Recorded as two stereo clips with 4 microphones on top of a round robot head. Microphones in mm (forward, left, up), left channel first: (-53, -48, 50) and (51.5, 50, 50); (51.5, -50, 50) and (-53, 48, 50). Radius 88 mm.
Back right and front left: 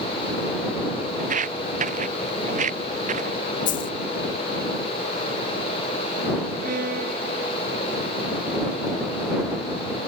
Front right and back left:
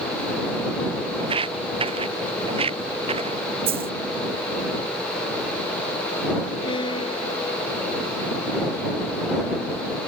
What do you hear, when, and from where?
1.2 s footsteps: 80° left; by 3.4 s 85° left
3.7 s a dropped coin: 170° right
6.6 s a violin: 15° left